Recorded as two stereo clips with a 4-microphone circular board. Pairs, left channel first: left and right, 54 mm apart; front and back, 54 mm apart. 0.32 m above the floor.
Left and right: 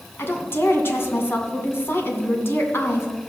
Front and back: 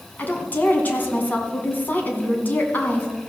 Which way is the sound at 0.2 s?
50° left.